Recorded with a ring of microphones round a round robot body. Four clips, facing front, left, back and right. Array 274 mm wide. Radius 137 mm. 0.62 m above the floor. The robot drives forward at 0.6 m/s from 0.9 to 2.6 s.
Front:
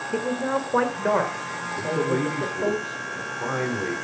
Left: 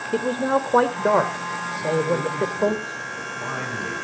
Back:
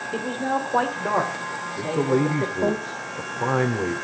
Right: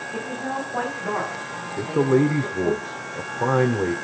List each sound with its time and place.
0.1 s a man speaking: 80° left, 2.5 m; by 2.8 s 100° left, 2.5 m
1.8 s a man speaking: 95° right, 1.6 m; by 4.0 s 110° right, 1.7 m